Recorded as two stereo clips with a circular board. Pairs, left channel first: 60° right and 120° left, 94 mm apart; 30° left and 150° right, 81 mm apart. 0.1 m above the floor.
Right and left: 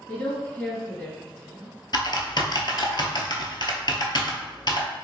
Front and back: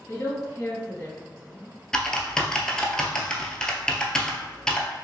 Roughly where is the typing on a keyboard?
Ahead right.